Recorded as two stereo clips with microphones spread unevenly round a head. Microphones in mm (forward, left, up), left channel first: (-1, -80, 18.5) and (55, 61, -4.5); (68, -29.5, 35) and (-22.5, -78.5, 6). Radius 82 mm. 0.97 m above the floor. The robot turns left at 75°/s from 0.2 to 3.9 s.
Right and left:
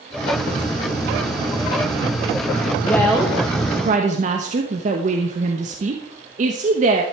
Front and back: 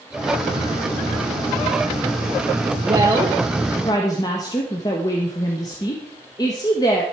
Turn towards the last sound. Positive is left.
turn(degrees=95)